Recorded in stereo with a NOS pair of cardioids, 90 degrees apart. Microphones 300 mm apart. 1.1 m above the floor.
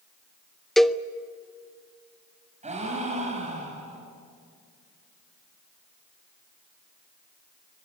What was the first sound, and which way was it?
A cowbell, straight ahead.